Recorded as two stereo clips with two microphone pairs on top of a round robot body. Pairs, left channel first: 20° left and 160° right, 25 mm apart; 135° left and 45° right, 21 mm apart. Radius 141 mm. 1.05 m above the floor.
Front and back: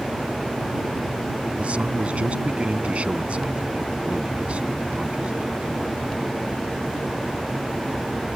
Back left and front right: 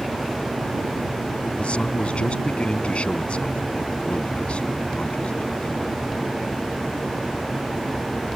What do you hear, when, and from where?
1.6 s a man speaking: 165° left